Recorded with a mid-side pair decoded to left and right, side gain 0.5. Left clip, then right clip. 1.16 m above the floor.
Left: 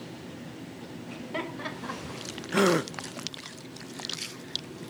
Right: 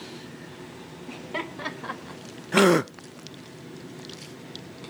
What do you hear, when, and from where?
1.1 s laughter: 15° right, 4.5 m; by 2.2 s 30° right, 3.5 m
2.5 s a gasp: 30° right, 0.5 m